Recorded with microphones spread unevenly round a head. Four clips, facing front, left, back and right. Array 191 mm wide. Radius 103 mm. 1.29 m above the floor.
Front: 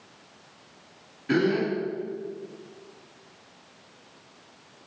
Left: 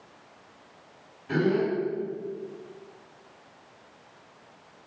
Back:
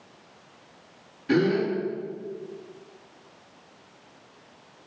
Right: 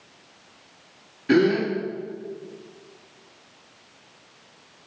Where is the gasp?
90° right, 3 m.